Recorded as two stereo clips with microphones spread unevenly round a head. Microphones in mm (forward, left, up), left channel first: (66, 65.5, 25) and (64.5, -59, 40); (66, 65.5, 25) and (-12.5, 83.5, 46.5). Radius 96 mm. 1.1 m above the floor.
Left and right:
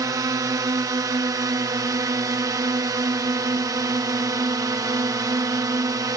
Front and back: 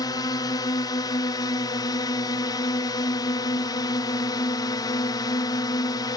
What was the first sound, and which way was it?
A drone, 30° right.